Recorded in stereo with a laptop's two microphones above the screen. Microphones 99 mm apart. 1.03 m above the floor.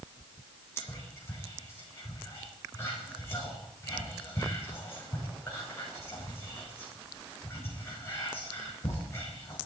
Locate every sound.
0.8 s whispering: 25° left (ahead or behind), 5.5 m